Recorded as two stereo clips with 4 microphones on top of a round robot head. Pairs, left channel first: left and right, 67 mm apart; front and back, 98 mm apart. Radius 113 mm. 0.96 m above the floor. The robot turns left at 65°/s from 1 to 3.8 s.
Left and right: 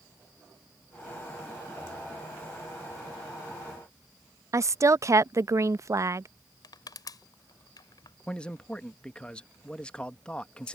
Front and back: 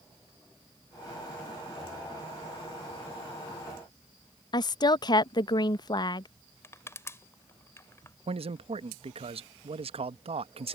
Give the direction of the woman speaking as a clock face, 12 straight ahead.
2 o'clock.